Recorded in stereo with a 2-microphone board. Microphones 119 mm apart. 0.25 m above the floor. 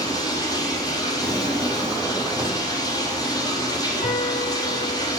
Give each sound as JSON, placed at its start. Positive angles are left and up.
{"t": 0.0, "sound": "running water", "side_deg": 35, "distance_m": 4.5}
{"t": 1.2, "sound": "a drawer", "side_deg": -20, "distance_m": 3.5}
{"t": 4.0, "sound": "a piano", "side_deg": 80, "distance_m": 3.0}